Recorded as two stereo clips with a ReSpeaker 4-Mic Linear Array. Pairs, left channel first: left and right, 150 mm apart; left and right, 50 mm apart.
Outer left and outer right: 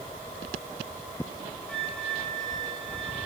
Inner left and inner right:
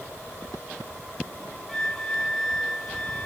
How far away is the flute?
About 3.5 m.